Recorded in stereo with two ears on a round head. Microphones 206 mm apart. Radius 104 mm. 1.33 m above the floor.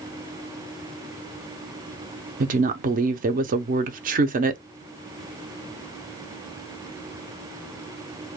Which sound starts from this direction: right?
A woman speaking, at 2.4 s.